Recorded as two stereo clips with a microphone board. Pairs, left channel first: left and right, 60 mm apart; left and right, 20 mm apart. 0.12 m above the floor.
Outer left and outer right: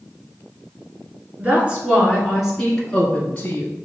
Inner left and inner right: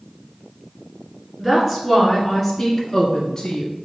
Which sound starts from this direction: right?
A woman speaking, at 1.4 s.